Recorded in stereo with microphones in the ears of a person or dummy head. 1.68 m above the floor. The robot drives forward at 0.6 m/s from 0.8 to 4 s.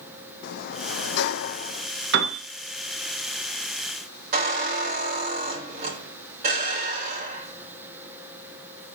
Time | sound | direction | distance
0.4 | a sliding door | 55° left (ahead or behind) | 0.6 m
2.1 | a piano | 65° right (ahead or behind) | 1.6 m
4.3 | a squeak | 45° right (ahead or behind) | 3 m